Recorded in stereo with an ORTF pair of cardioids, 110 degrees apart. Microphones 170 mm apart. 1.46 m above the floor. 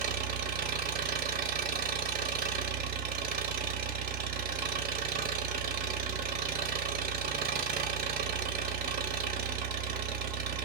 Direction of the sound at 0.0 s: 65° right.